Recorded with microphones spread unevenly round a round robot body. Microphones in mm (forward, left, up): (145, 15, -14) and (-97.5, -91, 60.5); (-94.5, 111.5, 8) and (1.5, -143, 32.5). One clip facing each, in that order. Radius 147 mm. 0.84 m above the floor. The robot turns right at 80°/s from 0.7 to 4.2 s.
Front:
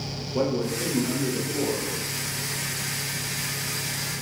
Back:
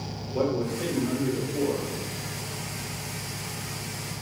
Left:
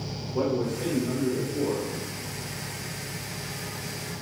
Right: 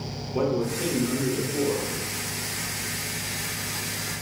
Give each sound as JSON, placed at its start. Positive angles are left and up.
{"t": 0.3, "sound": "a man speaking", "azimuth_deg": -20, "distance_m": 1.3}